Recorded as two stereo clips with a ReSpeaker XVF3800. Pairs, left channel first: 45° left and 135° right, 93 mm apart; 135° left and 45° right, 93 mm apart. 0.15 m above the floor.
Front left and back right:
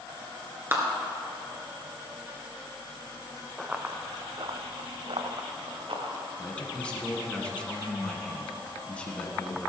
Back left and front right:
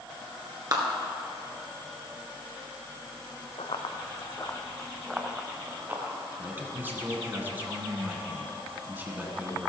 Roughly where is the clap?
Right.